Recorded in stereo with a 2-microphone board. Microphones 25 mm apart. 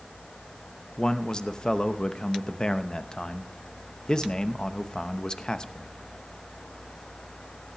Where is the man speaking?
35° left (ahead or behind), 0.8 m.